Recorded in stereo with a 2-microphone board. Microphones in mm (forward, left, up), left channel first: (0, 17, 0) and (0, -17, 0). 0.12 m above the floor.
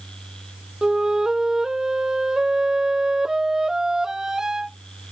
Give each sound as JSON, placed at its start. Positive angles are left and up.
{"t": 0.8, "sound": "a flute", "side_deg": -15}